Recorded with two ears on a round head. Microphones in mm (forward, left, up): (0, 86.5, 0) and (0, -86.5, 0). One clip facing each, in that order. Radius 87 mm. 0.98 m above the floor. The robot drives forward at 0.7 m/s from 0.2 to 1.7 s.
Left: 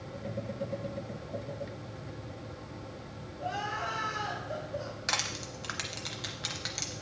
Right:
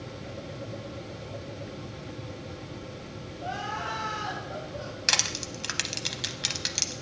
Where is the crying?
65° left (ahead or behind), 4.5 m.